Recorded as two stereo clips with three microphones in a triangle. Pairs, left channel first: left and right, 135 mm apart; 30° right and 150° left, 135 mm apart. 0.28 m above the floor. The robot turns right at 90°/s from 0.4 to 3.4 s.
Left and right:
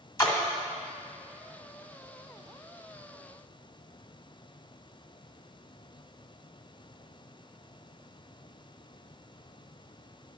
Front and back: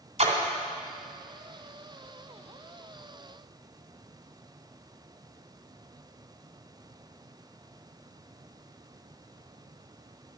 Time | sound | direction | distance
0.2 | a splash | 150° left | 1.6 m